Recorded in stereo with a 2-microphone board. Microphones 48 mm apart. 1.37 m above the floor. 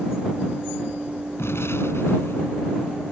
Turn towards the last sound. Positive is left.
turn(degrees=65)  # may be behind; listen again after turning